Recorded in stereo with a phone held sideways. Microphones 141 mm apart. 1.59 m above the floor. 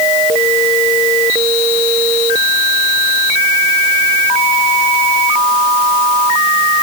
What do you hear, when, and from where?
Only background noise.